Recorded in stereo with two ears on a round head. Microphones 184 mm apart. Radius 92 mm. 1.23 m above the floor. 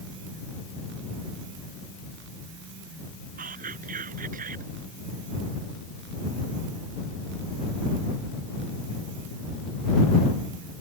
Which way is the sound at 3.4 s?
40° right (ahead or behind).